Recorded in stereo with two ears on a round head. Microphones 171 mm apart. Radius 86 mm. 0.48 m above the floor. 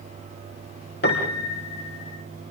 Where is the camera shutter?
I don't hear a camera shutter.